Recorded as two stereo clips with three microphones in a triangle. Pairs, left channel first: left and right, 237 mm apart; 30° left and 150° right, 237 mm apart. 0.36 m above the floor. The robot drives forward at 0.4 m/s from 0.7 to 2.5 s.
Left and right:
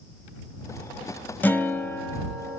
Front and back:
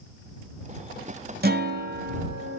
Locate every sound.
1.4 s a guitar: 170° left, 0.8 m; by 2.6 s 175° left, 1.2 m